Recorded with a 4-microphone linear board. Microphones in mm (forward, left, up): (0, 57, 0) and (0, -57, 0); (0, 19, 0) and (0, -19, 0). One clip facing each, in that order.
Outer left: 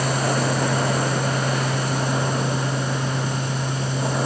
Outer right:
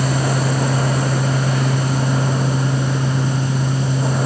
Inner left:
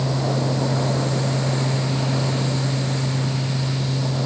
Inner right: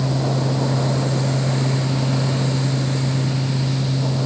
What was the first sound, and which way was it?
Only background noise.